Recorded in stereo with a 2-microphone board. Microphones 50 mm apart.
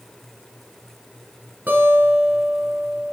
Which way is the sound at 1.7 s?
35° right (ahead or behind).